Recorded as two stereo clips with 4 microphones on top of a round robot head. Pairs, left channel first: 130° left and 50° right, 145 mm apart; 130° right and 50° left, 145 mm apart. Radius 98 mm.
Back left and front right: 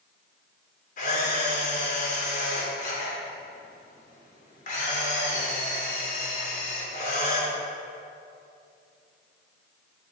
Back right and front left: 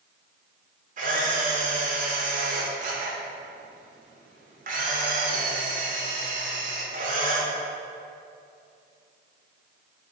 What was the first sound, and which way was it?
A camera shutter, 90° left.